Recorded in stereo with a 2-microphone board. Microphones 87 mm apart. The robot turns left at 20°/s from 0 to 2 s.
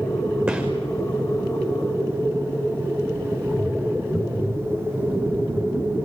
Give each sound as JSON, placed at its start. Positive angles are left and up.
{"t": 0.5, "sound": "a gunshot", "side_deg": -10, "distance_m": 5.0}